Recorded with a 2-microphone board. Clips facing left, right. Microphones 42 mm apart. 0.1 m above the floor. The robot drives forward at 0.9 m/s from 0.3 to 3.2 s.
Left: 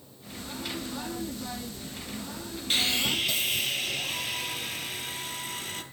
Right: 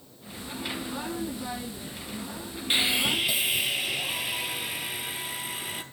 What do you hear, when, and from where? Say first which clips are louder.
2.7 s sawing: right 2 dB; 20° right (ahead or behind), 0.5 m; by 5.8 s 15° right (ahead or behind), 0.8 m